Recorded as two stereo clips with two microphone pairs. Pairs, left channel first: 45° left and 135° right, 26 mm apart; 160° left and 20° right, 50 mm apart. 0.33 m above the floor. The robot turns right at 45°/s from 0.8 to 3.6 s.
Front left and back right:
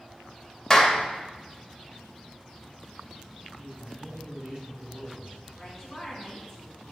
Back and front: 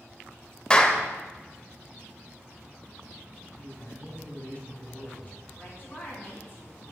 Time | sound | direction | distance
0.7 | a clap | 100° left | 0.8 m
3.6 | a man speaking | 160° right | 3 m
5.6 | a woman speaking | 120° left | 2.5 m